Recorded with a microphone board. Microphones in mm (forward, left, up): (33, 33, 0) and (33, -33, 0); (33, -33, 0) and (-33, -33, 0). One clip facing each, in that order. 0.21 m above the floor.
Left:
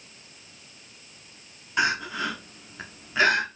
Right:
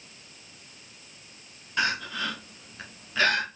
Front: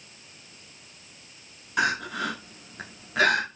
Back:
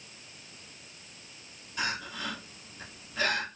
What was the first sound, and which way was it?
Crying, 15° left.